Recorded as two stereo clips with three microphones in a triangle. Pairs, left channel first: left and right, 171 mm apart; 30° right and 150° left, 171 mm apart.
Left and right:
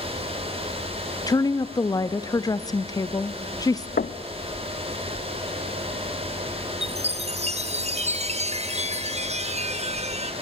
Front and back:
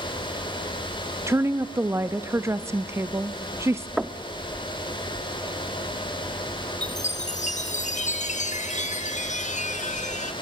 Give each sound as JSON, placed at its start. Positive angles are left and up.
{"t": 1.3, "sound": "a woman speaking", "azimuth_deg": 105, "distance_m": 0.6}
{"t": 4.0, "sound": "knocking", "azimuth_deg": 65, "distance_m": 0.5}
{"t": 6.8, "sound": "a chime", "azimuth_deg": -55, "distance_m": 0.6}